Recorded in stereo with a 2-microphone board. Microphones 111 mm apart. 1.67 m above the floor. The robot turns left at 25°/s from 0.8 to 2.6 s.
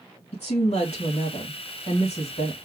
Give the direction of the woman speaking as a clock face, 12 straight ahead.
8 o'clock.